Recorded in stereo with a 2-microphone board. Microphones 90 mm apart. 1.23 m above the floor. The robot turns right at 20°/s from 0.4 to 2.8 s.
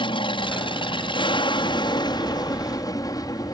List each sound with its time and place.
0.0 s an aircraft: 85° left; by 3.5 s 130° left